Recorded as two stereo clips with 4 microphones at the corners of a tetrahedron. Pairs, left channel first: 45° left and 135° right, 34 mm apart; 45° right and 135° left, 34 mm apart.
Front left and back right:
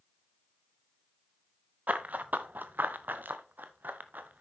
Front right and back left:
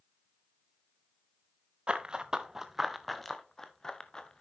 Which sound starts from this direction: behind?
Running footsteps, at 1.9 s.